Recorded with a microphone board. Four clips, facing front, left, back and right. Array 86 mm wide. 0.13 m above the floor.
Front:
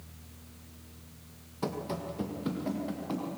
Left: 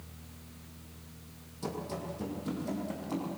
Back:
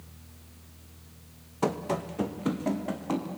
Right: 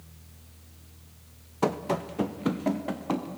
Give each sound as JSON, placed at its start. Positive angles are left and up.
{"t": 1.6, "sound": "running footsteps", "azimuth_deg": -115, "distance_m": 1.5}